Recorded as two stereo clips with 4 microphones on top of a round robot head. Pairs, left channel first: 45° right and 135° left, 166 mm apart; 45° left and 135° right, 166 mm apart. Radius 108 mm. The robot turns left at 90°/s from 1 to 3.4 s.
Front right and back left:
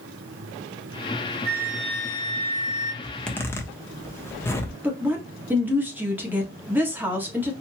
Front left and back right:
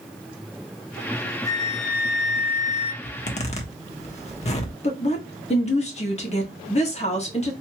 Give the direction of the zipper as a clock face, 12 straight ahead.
10 o'clock.